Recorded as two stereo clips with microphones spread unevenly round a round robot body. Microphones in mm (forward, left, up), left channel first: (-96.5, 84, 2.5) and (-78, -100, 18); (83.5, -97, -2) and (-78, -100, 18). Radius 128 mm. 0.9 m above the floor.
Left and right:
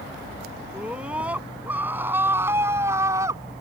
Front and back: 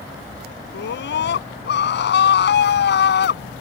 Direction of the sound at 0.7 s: Straight ahead.